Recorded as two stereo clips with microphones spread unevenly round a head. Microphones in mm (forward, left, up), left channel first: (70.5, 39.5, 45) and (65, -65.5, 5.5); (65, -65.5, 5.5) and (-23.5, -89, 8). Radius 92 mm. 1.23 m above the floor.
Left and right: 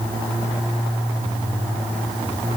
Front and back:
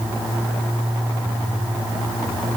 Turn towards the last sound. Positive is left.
No sound to turn to.